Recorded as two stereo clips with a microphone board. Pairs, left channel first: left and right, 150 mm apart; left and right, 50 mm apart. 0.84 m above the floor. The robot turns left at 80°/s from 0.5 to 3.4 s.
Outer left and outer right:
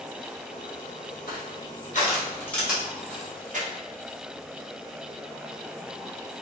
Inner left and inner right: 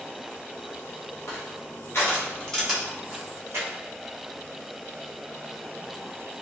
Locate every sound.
1.3 s crushing: 70° left (ahead or behind), 0.8 m; by 3.7 s 60° right (ahead or behind), 0.8 m